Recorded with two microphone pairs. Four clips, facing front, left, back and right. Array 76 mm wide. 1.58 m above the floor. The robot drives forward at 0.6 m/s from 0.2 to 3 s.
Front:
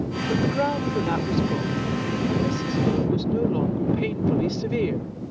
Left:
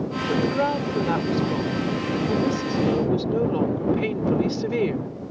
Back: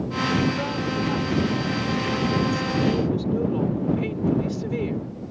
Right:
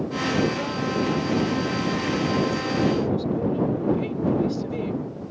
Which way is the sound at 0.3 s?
60° left.